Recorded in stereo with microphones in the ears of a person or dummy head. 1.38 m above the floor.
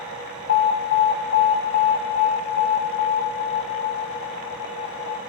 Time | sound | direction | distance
0.5 | an alarm | 55° left (ahead or behind) | 1.5 m